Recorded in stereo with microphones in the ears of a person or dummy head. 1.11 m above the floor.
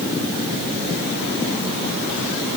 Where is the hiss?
No hiss in this recording.